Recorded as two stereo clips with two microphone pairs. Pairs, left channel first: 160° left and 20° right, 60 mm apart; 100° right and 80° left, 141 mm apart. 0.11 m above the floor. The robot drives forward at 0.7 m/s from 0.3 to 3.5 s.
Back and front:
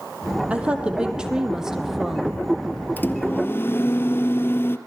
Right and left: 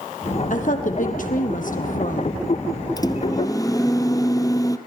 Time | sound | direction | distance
0.5 | a woman speaking | 90° right | 4 m
3.0 | a microwave | 155° right | 1.6 m